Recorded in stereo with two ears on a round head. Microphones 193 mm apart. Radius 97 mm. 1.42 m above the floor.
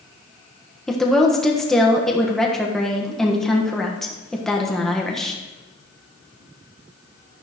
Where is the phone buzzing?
I don't hear a phone buzzing.